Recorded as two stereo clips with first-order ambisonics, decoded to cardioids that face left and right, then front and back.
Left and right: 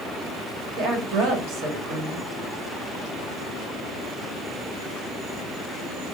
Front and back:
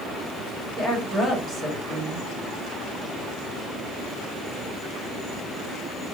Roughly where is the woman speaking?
Right.